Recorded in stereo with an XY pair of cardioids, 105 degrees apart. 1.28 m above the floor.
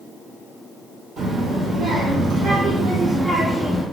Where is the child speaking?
65° right, 1.6 m; by 3.8 s 10° left, 0.5 m.